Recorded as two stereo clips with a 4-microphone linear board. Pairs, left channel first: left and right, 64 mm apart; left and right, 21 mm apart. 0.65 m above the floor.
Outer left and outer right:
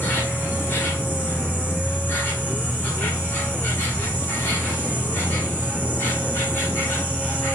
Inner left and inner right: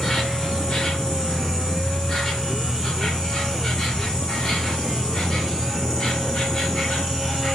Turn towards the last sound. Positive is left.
turn(degrees=30)  # may be behind; listen again after turning